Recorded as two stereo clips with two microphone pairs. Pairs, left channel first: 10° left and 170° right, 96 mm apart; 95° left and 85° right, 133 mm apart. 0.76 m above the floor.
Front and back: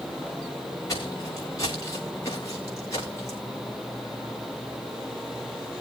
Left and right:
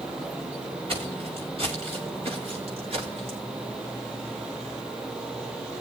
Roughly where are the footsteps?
Ahead right.